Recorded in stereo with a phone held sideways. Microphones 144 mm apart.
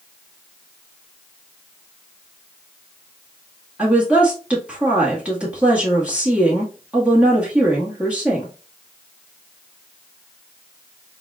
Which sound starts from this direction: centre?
A woman speaking, at 3.8 s.